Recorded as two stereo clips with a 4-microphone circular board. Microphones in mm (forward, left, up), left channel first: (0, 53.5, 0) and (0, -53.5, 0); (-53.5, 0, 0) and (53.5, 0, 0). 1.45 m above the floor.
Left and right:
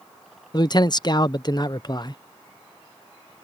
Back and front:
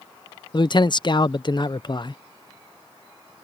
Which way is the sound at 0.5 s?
135° left.